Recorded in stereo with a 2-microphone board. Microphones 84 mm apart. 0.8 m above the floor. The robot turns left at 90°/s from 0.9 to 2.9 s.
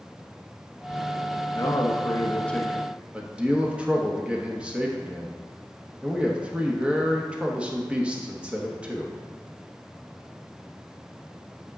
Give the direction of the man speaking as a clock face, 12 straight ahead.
9 o'clock.